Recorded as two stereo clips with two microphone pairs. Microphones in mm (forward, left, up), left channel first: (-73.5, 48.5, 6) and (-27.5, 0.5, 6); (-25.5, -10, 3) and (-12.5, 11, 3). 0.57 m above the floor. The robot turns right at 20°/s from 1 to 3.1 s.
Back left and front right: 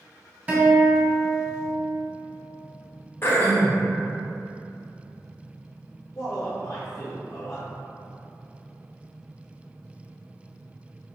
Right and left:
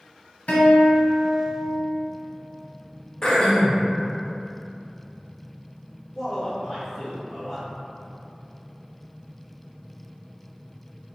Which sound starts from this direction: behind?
Throat clearing, at 3.2 s.